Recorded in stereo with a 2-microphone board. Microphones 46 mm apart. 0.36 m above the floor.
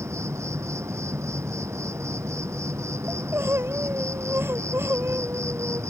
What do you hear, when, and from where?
0.0 s an insect: 85° right
3.1 s crying: 55° right (ahead or behind)